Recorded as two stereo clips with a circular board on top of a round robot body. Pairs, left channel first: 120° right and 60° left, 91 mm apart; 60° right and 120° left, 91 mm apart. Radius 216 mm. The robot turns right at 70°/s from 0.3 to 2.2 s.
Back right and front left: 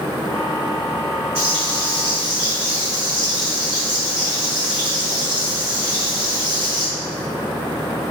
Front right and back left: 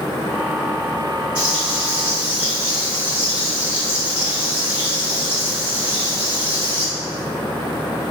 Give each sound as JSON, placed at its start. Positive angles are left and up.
{"t": 1.4, "sound": "frying", "azimuth_deg": 85, "distance_m": 1.4}